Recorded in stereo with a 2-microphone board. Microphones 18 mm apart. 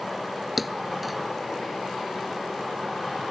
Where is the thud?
5° right (ahead or behind).